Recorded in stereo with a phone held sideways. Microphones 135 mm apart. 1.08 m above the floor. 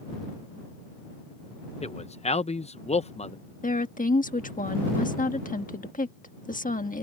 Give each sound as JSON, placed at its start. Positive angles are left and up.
{"t": 1.8, "sound": "a man speaking", "side_deg": 50}
{"t": 3.6, "sound": "a woman speaking", "side_deg": 85}